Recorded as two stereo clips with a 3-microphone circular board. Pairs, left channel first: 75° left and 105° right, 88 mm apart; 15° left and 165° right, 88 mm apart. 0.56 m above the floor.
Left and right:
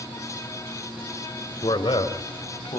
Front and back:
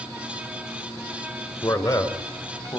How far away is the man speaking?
About 2.5 m.